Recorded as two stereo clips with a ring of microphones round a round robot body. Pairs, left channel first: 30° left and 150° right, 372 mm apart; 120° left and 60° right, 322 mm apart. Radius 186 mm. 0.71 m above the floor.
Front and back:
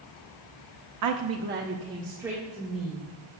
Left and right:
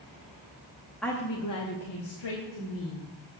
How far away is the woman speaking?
About 0.7 m.